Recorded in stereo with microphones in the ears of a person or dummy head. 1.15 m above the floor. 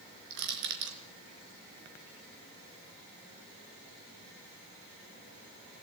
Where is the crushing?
65° right (ahead or behind), 3 m.